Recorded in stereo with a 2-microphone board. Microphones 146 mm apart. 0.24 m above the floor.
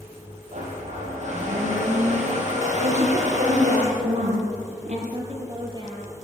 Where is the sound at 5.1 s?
35° right (ahead or behind), 5.5 m.